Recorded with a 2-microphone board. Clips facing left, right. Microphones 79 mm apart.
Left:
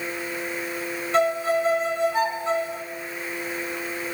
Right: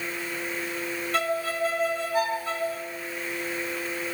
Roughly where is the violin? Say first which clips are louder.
Left 7 dB; left.